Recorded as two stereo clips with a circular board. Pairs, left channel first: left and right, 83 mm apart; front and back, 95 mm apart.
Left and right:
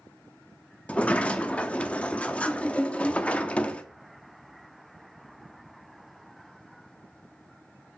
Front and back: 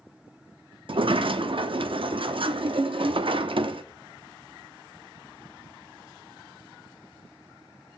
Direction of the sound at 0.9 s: 165° left.